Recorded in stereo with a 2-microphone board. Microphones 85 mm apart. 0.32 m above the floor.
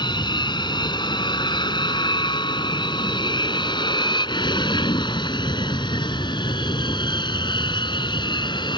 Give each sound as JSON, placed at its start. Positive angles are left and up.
{"t": 0.0, "sound": "an aircraft", "side_deg": 65}